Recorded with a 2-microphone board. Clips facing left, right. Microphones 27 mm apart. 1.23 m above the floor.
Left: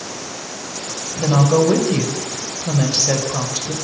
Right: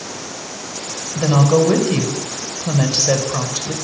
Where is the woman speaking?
30° right (ahead or behind), 5.5 m.